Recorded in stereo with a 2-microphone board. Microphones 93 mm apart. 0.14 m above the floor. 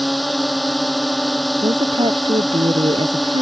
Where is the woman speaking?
70° right (ahead or behind).